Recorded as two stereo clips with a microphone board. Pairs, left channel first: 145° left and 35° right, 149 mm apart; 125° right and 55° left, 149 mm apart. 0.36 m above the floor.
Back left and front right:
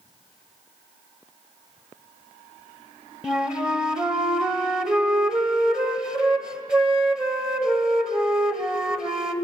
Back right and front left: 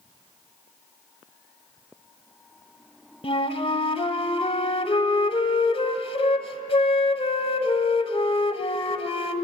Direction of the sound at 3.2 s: 115° right.